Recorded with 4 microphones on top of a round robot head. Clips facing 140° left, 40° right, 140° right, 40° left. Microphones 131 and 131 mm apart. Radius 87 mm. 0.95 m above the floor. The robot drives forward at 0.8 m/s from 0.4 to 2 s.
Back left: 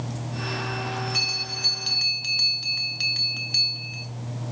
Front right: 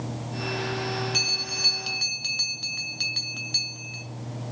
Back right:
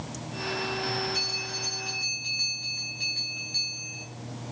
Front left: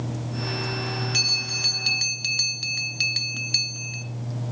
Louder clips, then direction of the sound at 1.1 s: Front right 1 dB, front left 1 dB; 25° left.